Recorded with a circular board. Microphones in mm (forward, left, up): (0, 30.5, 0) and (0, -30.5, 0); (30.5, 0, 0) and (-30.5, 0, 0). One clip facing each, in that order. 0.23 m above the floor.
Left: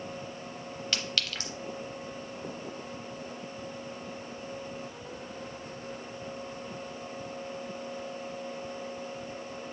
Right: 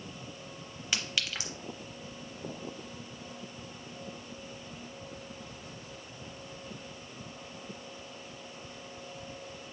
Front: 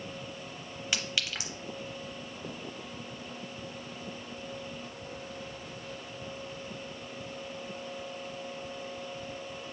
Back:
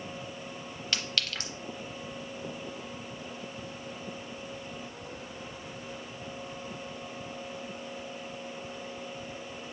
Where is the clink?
45° right, 0.7 m.